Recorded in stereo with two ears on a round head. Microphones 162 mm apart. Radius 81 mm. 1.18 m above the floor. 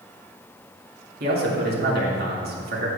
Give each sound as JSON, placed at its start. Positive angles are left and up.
{"t": 1.2, "sound": "a man speaking", "side_deg": -55, "distance_m": 2.0}